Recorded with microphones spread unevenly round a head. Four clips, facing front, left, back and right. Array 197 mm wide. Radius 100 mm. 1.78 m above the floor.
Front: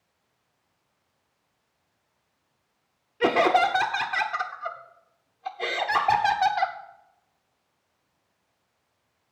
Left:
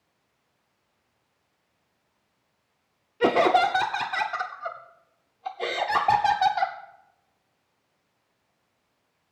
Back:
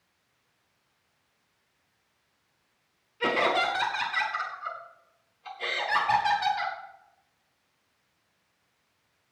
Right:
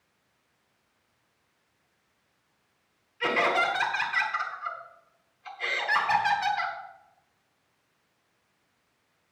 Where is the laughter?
65° left, 0.9 m.